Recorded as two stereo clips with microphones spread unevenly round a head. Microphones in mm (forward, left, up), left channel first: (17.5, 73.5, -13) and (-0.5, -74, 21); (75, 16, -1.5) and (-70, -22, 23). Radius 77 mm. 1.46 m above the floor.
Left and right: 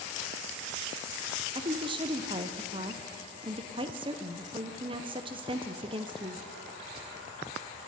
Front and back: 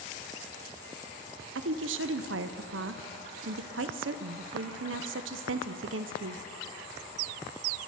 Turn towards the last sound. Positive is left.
turn(degrees=-160)